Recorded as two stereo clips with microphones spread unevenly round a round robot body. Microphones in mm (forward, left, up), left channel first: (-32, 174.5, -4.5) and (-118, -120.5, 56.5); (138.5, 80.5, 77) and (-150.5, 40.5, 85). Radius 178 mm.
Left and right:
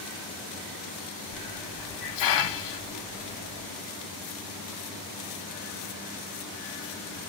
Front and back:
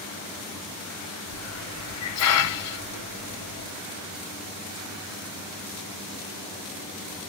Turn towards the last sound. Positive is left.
turn(degrees=45)